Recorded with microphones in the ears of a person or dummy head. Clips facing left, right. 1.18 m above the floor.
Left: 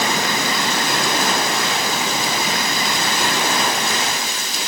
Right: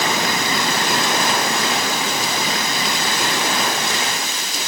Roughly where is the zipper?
I don't hear a zipper.